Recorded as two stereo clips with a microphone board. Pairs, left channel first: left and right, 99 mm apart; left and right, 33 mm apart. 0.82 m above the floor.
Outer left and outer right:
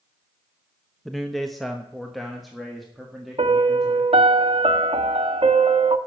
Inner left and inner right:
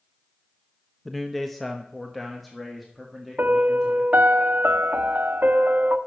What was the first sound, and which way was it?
A man speaking, centre (ahead or behind).